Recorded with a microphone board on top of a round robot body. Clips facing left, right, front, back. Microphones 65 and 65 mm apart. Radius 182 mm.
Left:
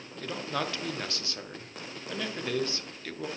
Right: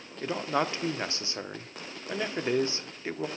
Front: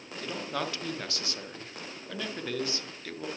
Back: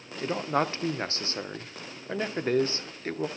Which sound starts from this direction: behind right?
A man speaking, at 0.2 s.